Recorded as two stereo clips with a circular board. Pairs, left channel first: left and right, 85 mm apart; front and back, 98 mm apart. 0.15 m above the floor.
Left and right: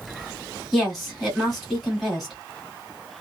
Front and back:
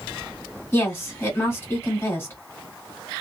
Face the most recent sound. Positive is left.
turn(degrees=0)